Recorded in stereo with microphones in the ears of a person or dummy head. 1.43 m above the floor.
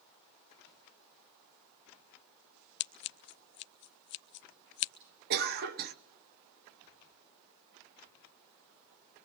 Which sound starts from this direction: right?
A cough, at 5.3 s.